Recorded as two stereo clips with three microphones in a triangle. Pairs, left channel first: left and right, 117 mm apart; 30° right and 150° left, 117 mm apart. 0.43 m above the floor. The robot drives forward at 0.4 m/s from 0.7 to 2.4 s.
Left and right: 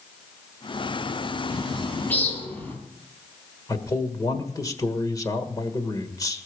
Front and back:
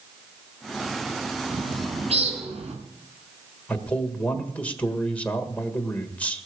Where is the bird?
160° left, 3.5 m; by 2.8 s 165° left, 3.5 m.